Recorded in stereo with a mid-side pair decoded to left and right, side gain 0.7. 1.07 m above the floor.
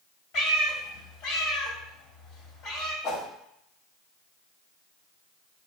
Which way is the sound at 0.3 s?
60° left.